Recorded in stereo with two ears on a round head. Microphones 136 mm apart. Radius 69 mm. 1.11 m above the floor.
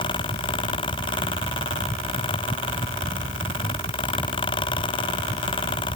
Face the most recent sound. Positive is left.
No sound to turn to.